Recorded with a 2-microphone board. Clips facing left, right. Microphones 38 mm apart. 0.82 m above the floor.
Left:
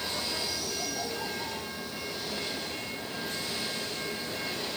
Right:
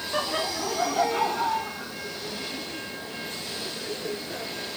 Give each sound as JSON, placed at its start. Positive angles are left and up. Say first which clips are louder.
{"t": 0.1, "sound": "laughter", "louder": "right 6 dB", "side_deg": -70}